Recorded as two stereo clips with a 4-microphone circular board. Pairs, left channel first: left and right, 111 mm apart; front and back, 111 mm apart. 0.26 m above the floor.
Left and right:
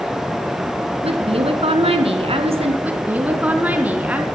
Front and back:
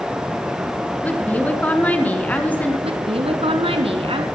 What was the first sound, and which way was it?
A woman speaking, 75° right.